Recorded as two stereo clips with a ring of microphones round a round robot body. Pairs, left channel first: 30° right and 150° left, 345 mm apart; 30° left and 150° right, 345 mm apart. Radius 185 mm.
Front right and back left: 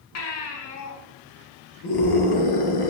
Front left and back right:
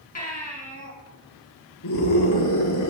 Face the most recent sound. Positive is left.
turn(degrees=-10)